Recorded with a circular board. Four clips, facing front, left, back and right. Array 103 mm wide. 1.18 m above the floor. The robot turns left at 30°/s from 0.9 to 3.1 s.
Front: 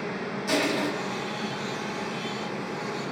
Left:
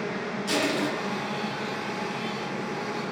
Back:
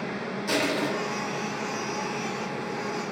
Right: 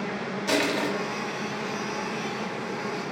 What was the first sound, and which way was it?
Crushing, 90° right.